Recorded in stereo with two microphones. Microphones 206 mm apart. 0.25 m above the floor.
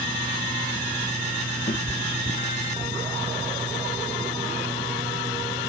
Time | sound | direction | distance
1.7 | a cat meowing | 35° left (ahead or behind) | ?